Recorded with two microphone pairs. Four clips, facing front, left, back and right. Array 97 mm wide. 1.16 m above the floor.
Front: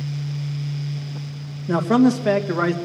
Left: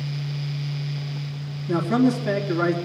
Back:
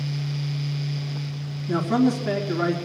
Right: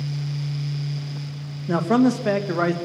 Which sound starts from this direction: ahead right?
A man speaking, at 1.7 s.